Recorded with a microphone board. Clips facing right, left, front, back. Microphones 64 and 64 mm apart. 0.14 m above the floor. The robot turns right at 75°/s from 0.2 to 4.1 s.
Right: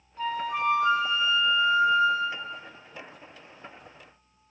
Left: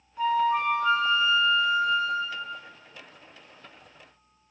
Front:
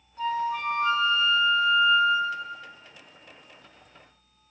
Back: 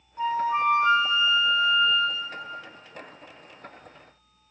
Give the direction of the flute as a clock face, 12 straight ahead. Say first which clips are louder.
Left 5 dB, back 3 dB; 7 o'clock.